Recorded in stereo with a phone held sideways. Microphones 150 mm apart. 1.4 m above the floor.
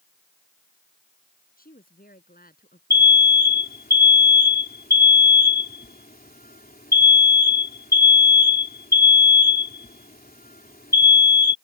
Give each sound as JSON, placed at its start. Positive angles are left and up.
{"t": 1.6, "sound": "a woman speaking", "side_deg": 75}
{"t": 2.9, "sound": "an alarm", "side_deg": 85}